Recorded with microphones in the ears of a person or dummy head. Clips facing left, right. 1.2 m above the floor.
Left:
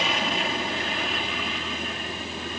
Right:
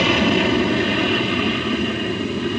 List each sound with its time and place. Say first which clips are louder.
0.0 s an aircraft: right 11 dB; 50° right (ahead or behind)